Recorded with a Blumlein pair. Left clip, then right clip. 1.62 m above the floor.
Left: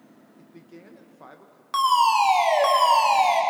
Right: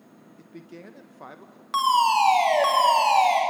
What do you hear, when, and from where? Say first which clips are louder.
0.4 s a man speaking: right 4 dB; 15° right, 1.7 m
1.7 s a fire alarm: left 1 dB; straight ahead, 3.5 m